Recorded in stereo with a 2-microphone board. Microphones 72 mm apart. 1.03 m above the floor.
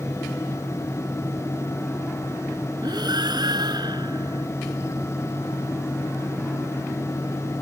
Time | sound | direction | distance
2.8 | breathing | 65° right (ahead or behind) | ?